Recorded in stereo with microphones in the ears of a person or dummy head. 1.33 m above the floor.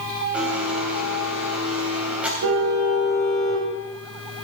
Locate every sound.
0.3 s a blender: centre (ahead or behind), 3 m
2.4 s a car horn: 80° right, 4 m